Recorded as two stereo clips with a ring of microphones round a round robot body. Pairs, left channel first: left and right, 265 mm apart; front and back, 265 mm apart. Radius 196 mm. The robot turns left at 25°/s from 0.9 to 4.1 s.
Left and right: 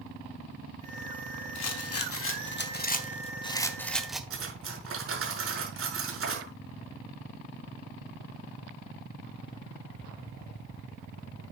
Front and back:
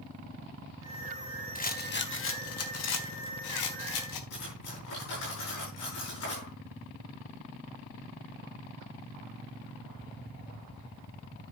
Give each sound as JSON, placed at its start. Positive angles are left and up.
{"t": 1.6, "sound": "a rattle", "azimuth_deg": 65, "distance_m": 1.9}
{"t": 4.3, "sound": "cutlery clinking", "azimuth_deg": -50, "distance_m": 6.5}